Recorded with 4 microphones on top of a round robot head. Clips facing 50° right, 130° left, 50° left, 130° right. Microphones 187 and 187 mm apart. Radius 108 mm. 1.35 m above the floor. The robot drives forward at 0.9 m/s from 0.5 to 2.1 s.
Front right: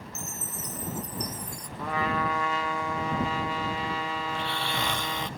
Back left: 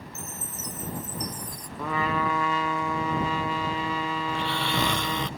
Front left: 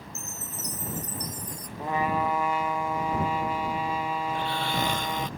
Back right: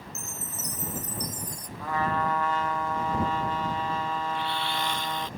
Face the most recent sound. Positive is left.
turn(degrees=100)